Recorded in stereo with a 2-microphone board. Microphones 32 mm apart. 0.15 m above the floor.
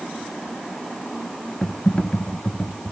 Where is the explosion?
No explosion in this recording.